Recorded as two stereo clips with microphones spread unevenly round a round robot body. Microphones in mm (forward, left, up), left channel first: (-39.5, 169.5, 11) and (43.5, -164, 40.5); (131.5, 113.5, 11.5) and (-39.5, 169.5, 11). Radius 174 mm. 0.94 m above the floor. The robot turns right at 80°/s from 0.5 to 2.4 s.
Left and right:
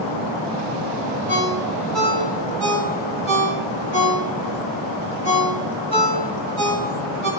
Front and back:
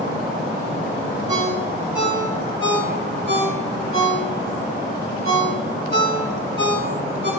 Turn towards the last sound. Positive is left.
turn(degrees=-60)